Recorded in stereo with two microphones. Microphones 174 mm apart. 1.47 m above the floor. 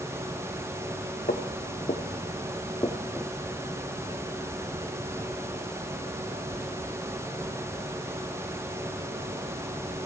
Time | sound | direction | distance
1.3 | footsteps | 50° left (ahead or behind) | 2.5 m